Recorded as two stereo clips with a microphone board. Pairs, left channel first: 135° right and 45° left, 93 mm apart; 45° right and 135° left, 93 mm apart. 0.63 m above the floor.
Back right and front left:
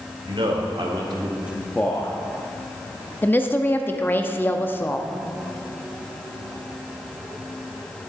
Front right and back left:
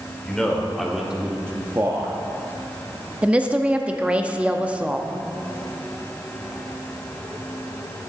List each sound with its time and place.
0.2 s a man speaking: 35° left, 2 m; by 2.2 s 170° right, 1.2 m
3.2 s a woman speaking: 165° right, 0.6 m